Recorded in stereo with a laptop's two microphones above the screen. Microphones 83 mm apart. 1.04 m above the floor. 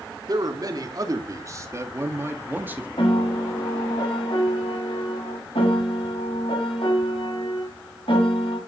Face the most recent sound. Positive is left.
turn(degrees=85)